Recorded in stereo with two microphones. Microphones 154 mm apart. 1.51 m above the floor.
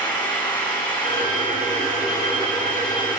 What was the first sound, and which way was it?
An engine running, 25° left (ahead or behind).